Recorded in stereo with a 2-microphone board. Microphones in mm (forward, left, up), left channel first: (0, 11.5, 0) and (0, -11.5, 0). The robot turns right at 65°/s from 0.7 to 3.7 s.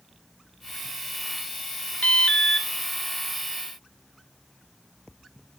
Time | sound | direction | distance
2.0 | an alarm | 115° left | 1.1 m